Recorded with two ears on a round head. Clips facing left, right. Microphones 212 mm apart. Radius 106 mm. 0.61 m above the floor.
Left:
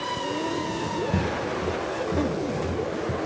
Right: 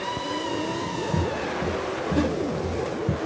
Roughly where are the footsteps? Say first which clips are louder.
Even; centre.